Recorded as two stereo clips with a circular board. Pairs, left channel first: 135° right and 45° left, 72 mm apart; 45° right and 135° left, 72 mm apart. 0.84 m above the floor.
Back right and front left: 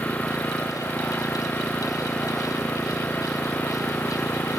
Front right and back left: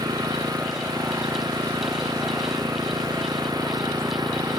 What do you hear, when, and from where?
0.0 s an engine running: 155° left